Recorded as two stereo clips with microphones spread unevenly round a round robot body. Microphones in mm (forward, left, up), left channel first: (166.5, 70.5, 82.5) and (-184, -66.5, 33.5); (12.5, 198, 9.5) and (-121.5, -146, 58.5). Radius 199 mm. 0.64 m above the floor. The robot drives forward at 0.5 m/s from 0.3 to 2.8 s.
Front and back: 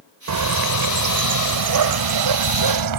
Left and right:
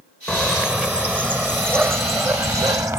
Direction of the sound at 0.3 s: 155° left.